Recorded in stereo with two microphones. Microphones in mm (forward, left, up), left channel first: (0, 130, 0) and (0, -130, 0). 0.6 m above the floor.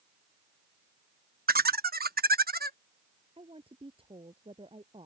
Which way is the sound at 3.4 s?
20° right (ahead or behind).